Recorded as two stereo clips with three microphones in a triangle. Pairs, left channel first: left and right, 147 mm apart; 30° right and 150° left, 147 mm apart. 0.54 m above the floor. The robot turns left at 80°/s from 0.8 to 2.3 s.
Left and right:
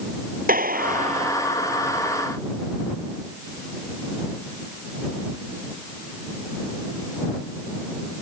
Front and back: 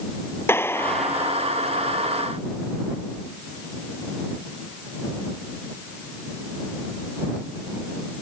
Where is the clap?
105° right; by 1.5 s 160° right.